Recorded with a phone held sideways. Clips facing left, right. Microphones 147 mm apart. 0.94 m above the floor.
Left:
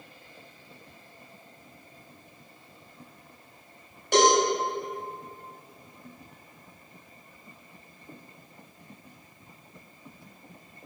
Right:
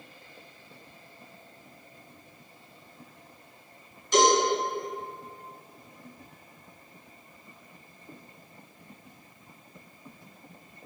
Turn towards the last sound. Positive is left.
turn(degrees=65)  # may be behind; listen again after turning